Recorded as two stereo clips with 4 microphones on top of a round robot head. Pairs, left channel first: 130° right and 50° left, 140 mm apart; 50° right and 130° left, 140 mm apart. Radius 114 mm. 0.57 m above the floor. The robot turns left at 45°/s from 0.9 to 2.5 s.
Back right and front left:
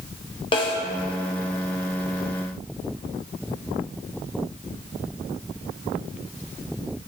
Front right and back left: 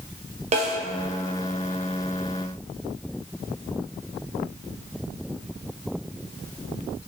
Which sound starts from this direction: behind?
A snare drum, at 0.5 s.